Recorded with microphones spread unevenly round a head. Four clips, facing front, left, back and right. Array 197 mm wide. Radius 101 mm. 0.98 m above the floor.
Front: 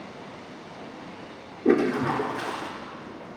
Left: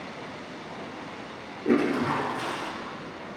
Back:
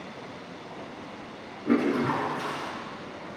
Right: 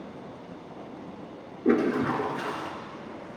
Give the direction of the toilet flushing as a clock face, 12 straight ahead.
1 o'clock.